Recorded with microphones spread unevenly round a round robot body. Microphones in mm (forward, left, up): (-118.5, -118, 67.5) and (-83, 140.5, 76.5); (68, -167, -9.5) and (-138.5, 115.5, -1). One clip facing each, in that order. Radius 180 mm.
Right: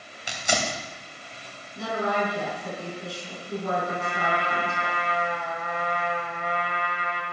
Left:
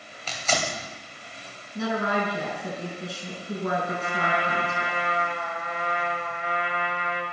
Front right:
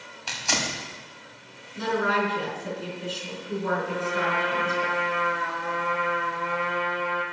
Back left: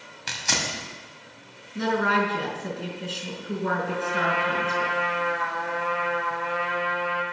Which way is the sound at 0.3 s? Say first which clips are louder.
Even, front right 1 dB; 175° right.